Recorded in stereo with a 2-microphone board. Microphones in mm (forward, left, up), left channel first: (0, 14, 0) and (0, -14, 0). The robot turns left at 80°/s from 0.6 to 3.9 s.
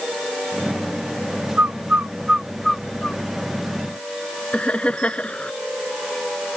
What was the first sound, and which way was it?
A bird, 70° right (ahead or behind).